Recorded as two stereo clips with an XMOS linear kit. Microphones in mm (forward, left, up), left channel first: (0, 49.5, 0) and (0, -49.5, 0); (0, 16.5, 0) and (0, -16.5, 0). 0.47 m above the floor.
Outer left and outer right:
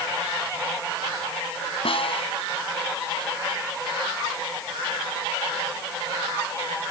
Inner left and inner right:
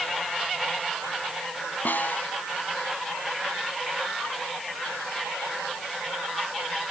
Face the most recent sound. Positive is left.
turn(degrees=70)  # may be behind; listen again after turning